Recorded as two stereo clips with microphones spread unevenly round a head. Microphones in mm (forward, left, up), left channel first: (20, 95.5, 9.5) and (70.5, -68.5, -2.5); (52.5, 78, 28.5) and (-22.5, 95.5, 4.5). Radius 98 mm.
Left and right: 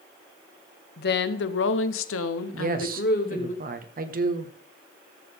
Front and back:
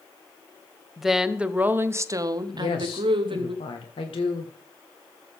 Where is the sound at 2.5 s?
35° right, 1.5 m.